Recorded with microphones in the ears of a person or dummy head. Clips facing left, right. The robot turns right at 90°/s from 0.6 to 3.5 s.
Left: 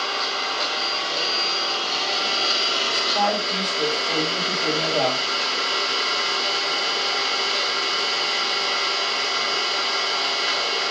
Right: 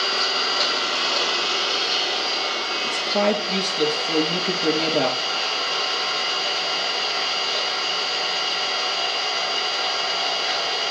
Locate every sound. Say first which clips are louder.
0.0 s an engine running: right 2 dB; 140° right, 5.5 m; by 10.9 s 125° left, 5.5 m
2.8 s a woman speaking: right 4 dB; 95° right, 2.5 m; by 5.2 s 35° right, 2.5 m